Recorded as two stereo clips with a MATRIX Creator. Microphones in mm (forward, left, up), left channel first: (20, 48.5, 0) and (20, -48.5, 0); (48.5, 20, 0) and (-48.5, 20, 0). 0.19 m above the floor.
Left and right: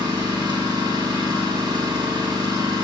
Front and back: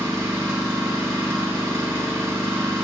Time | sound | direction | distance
0.0 | an engine running | 120° right | 2.5 m